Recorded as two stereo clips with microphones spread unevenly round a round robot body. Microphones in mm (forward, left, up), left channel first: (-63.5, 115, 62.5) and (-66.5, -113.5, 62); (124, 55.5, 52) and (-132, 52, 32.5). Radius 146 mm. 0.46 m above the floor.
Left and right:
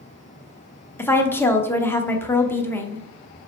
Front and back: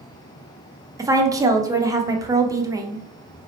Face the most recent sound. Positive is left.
turn(degrees=150)